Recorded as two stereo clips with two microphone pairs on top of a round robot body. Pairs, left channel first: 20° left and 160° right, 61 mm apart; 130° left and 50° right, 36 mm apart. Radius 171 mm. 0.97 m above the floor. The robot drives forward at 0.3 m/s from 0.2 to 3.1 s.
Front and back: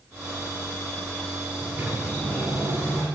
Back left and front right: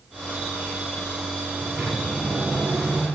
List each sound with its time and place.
1.6 s a sliding door: 110° right, 8 m